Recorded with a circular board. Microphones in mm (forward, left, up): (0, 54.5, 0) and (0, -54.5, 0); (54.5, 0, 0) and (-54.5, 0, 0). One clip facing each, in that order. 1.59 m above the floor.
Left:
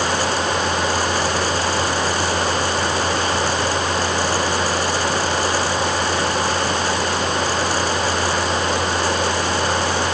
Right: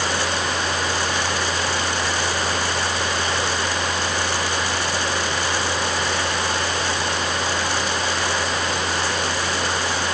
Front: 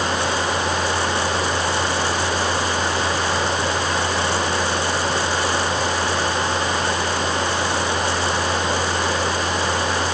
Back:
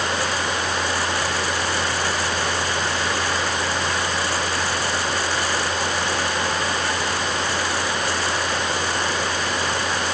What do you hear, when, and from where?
Only background noise.